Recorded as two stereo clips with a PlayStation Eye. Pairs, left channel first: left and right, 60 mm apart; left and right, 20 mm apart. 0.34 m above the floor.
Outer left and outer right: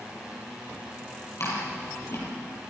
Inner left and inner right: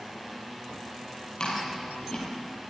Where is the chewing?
50° left (ahead or behind), 7 m.